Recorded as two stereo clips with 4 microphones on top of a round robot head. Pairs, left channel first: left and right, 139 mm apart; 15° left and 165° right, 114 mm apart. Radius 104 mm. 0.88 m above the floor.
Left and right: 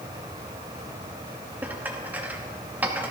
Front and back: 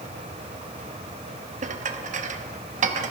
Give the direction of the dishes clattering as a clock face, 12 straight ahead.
6 o'clock.